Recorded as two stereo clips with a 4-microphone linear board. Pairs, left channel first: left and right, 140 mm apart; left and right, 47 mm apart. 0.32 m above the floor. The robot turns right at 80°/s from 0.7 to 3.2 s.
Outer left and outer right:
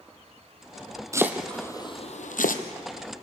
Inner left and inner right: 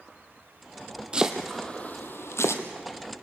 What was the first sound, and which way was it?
Chopping, 25° right (ahead or behind).